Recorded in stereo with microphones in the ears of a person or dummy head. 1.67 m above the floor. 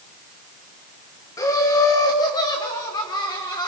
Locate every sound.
1.4 s laughter: 15° left (ahead or behind), 2 m; by 3.7 s 25° left (ahead or behind), 4 m